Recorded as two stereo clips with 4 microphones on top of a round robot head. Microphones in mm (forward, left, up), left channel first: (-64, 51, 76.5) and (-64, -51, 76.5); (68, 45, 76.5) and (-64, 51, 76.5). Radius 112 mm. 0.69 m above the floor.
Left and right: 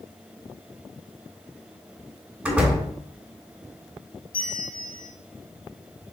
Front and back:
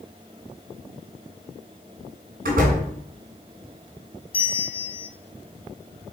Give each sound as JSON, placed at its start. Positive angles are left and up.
{"t": 2.5, "sound": "a door slam", "azimuth_deg": -170, "distance_m": 3.0}
{"t": 4.3, "sound": "a bell", "azimuth_deg": 45, "distance_m": 0.9}